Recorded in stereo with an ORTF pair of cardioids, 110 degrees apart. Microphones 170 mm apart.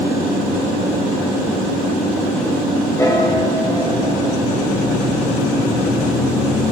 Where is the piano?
15° left, 8 m.